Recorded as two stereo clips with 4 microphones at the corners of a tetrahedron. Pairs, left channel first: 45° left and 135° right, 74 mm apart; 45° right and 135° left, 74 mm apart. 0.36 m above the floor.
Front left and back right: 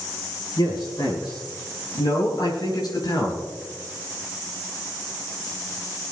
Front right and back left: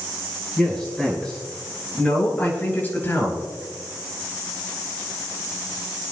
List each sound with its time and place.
0.6 s a man speaking: 40° left, 7 m; by 3.5 s 15° left, 5 m